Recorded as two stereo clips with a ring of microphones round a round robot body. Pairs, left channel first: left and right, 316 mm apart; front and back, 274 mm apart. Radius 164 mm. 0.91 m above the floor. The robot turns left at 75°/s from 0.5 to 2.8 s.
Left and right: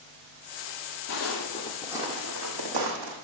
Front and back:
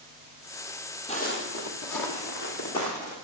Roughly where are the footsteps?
Ahead left.